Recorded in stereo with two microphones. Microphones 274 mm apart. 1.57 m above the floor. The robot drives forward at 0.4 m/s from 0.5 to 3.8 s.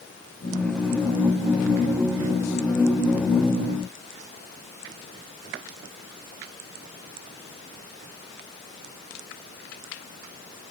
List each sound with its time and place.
Only background noise.